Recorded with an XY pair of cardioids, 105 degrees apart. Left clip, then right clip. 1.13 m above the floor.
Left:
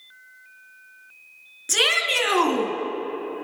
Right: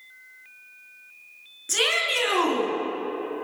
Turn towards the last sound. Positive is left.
turn(degrees=50)